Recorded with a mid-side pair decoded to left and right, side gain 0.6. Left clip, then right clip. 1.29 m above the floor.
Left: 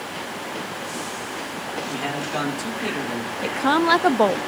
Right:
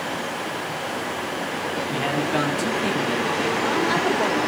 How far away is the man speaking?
About 7.5 m.